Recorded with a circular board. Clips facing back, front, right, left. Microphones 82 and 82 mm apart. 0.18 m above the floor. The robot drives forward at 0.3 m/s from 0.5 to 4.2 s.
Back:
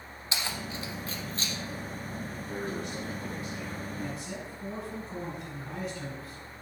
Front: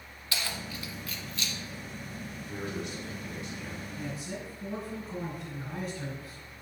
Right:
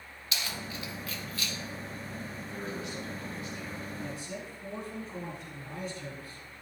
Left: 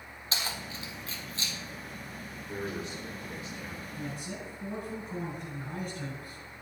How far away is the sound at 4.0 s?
About 2.5 m.